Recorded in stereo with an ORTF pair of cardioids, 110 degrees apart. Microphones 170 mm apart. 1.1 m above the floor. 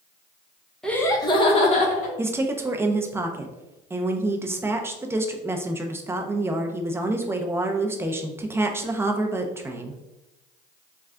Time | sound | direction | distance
0.8 | laughter | 5° left | 0.8 m
2.2 | a woman speaking | 15° right | 0.6 m